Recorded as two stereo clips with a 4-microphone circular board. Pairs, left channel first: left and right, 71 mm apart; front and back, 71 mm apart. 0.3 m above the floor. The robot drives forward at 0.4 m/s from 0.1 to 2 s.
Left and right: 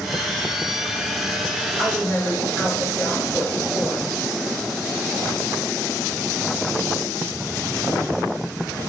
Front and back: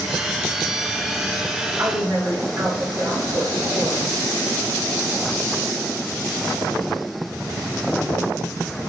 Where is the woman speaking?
175° right, 1.3 m.